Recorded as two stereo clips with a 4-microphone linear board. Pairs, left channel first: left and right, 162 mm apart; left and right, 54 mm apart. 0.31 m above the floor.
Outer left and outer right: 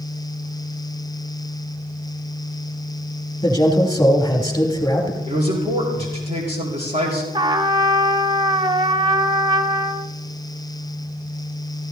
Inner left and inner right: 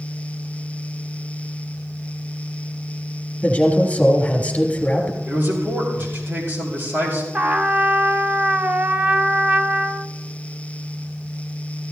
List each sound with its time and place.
3.4 s a man speaking: 20° left (ahead or behind), 3 m
5.3 s a man speaking: 35° right (ahead or behind), 5.5 m
7.3 s a trumpet: 25° right (ahead or behind), 0.5 m